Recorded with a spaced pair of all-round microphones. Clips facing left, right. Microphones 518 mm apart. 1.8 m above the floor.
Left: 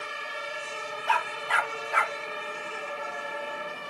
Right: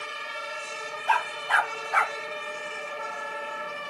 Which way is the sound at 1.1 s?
45° left (ahead or behind).